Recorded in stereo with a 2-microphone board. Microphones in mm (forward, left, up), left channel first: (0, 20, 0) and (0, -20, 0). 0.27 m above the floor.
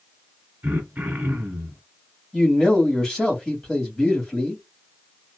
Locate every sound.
0.6 s throat clearing: 45° right (ahead or behind), 1.6 m
2.3 s a man speaking: 15° left (ahead or behind), 1.6 m